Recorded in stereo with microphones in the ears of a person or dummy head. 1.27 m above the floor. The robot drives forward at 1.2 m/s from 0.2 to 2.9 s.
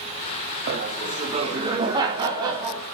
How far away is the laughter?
About 1.3 m.